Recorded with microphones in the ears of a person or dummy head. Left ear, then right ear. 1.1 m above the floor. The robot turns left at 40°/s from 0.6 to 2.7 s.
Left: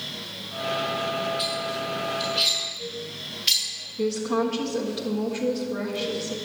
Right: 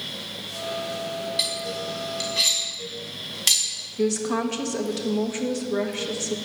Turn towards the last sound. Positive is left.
turn(degrees=-55)  # may be behind; listen again after turning